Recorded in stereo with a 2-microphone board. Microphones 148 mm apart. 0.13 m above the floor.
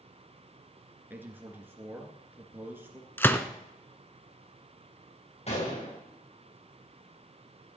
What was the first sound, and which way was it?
A man speaking, 15° right (ahead or behind).